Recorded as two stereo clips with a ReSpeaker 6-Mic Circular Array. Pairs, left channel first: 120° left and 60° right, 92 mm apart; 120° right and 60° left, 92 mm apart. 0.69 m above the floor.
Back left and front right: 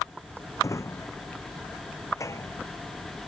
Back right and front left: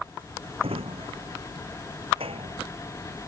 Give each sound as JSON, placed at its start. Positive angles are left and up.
{"t": 0.6, "sound": "a drawer", "azimuth_deg": 65}